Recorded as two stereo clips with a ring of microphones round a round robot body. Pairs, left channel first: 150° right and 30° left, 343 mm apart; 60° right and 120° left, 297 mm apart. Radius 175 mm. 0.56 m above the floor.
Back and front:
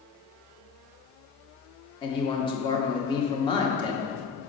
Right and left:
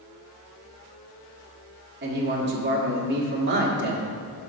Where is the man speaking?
140° left, 1.3 m.